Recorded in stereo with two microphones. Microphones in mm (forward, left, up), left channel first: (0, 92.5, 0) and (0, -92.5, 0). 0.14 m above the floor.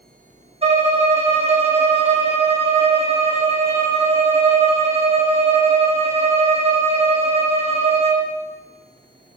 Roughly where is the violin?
Right.